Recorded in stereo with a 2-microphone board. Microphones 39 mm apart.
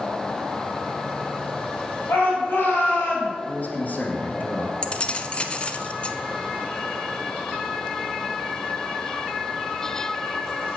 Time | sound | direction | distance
2.1 | a shout | 70° left (ahead or behind) | 4 m
3.5 | a man speaking | 45° left (ahead or behind) | 2.5 m
4.8 | keys jangling | 25° left (ahead or behind) | 0.9 m